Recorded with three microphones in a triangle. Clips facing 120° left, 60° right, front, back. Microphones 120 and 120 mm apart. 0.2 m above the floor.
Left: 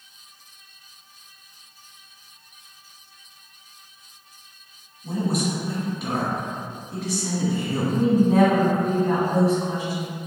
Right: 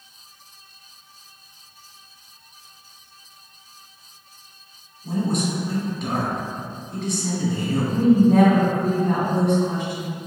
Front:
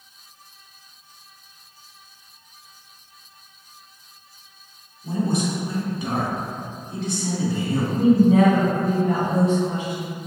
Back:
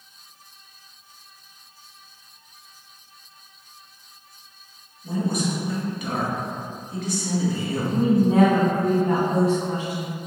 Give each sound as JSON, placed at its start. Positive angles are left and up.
{"t": 5.0, "sound": "a man speaking", "azimuth_deg": 40, "distance_m": 1.8}
{"t": 7.9, "sound": "a woman speaking", "azimuth_deg": -165, "distance_m": 1.9}